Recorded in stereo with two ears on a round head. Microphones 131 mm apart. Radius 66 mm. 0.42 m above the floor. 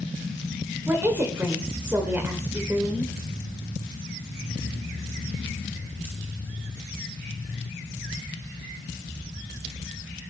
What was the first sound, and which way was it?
A woman speaking, 15° right (ahead or behind).